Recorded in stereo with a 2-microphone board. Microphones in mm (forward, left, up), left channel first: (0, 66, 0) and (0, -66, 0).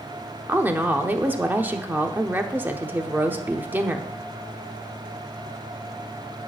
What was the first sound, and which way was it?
A woman speaking, 15° right (ahead or behind).